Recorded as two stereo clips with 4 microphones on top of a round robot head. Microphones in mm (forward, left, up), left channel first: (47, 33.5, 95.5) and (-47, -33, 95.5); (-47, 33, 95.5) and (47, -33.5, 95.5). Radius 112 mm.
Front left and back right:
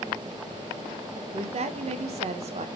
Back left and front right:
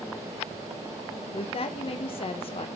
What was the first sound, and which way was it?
A woman speaking, 175° right.